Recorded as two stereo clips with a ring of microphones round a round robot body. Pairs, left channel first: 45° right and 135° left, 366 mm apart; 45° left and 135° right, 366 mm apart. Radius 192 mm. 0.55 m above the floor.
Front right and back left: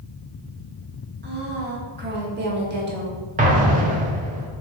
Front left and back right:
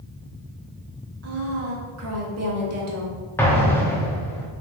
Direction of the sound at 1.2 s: 170° right.